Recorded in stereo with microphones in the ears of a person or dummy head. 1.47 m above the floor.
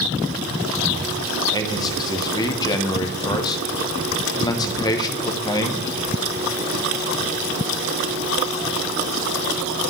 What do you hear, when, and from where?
1.5 s a man speaking: 15° left (ahead or behind), 0.9 m